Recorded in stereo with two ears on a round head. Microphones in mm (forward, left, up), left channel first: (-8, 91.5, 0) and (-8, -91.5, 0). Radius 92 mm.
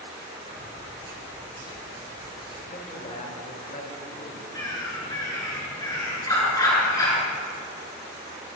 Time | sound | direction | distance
0.4 | keys jangling | 30° right (ahead or behind) | 5 m
2.7 | a man speaking | 35° left (ahead or behind) | 2 m
4.5 | a bird | 20° left (ahead or behind) | 4 m